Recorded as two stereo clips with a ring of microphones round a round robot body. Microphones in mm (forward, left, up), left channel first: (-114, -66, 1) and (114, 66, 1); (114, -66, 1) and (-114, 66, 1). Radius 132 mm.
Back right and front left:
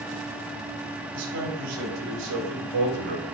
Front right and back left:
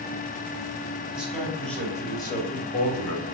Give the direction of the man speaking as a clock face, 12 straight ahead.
10 o'clock.